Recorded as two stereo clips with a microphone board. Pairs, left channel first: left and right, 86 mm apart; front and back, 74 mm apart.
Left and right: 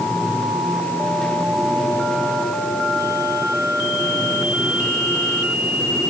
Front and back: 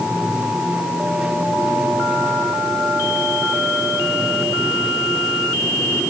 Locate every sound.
Only background noise.